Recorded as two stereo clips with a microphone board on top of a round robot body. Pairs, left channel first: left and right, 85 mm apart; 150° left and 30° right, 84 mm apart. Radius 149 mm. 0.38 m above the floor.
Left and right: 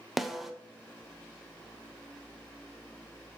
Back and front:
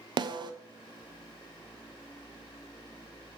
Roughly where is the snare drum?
Ahead.